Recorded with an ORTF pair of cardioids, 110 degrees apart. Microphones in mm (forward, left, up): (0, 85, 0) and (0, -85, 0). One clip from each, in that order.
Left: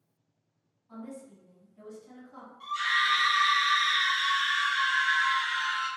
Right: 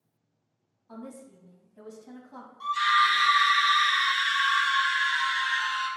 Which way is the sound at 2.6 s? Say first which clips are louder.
Right 4 dB; 55° right.